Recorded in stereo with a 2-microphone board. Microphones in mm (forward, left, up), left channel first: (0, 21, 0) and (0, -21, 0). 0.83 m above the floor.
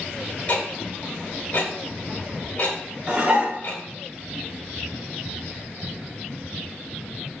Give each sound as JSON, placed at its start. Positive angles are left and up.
{"t": 0.5, "sound": "ticking", "side_deg": 40, "distance_m": 1.4}
{"t": 3.1, "sound": "dishes clattering", "side_deg": -20, "distance_m": 1.0}